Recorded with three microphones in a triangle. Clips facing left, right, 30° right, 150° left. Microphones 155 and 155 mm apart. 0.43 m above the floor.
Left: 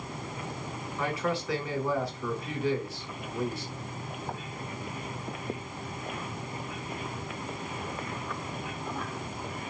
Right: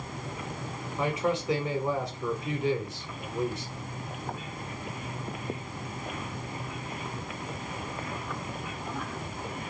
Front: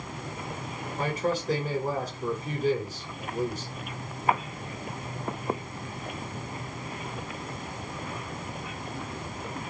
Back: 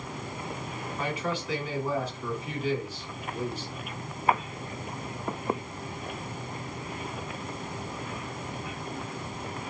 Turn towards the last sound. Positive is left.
turn(degrees=-30)